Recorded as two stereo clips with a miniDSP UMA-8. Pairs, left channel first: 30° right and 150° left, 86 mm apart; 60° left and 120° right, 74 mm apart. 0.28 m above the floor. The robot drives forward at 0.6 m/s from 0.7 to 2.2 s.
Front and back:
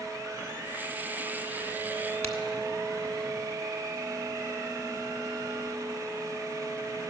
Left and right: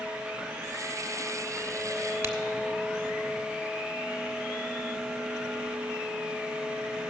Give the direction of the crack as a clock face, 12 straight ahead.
3 o'clock.